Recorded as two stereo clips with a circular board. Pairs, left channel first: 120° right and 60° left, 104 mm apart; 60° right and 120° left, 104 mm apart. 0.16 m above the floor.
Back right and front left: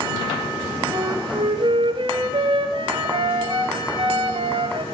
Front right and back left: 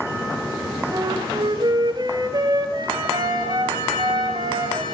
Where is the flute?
80° left, 2 m.